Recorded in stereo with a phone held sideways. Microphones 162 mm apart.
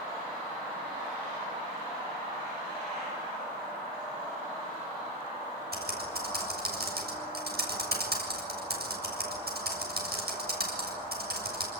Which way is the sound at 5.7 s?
80° right.